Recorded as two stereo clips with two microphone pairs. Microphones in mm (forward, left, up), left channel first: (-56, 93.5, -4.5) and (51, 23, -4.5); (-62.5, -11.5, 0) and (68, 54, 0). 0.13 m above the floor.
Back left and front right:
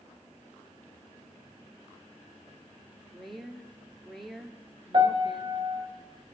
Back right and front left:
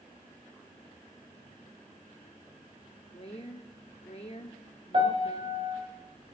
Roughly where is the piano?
Ahead.